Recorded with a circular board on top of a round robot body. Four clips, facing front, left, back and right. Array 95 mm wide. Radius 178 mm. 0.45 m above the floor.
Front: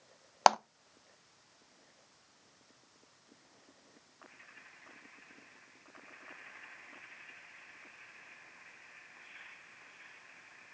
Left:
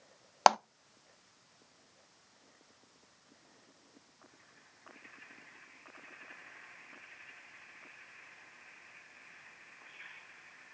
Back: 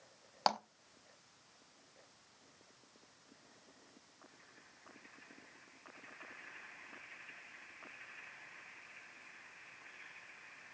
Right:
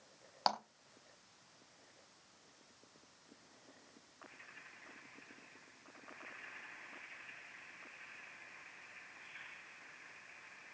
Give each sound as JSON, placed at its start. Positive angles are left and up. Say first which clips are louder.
{"t": 0.5, "sound": "a clap", "louder": "left 12 dB, front 10 dB", "azimuth_deg": 50, "distance_m": 0.8}